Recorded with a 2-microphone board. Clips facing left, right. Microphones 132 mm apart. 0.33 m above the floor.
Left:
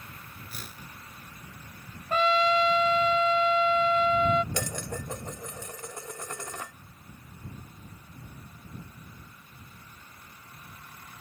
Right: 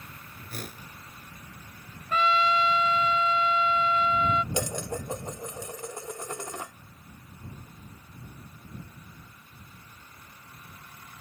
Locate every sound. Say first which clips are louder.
0.5 s a whoosh: right 8 dB; 50° right (ahead or behind)
2.1 s a trumpet: left 1 dB; 40° left (ahead or behind)
4.5 s dishes clattering: right 3 dB; 20° right (ahead or behind)